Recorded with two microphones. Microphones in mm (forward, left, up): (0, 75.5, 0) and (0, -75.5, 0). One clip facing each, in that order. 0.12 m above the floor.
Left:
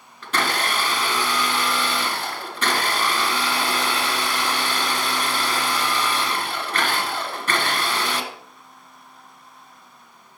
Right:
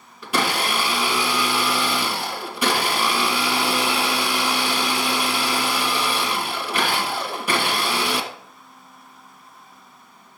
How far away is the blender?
About 1.7 m.